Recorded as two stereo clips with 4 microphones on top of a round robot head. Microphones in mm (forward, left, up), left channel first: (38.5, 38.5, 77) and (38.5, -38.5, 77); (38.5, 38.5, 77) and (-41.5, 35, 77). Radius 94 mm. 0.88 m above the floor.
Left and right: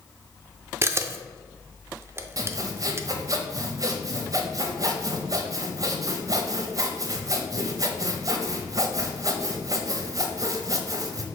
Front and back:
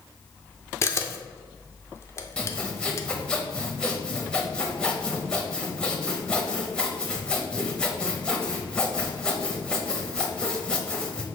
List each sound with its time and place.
0.8 s a camera shutter: 40° right, 0.6 m
2.4 s sawing: 75° right, 0.8 m